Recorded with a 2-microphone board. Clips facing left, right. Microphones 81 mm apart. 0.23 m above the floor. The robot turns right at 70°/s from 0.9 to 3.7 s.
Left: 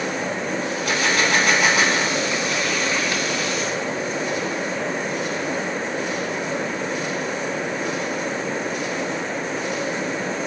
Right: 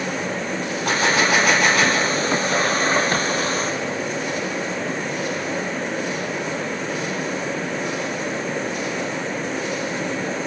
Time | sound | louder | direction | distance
0.8 | a gunshot | right 3 dB | 45° right | 1.5 m